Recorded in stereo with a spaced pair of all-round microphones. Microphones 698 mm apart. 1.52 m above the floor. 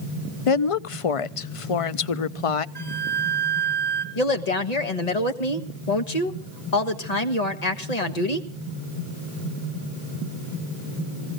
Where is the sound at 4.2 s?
65° left (ahead or behind), 1.6 m.